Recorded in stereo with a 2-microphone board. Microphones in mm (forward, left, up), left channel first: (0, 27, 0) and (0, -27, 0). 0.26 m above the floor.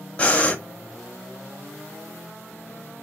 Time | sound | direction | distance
0.2 | breathing | 25° left (ahead or behind) | 0.7 m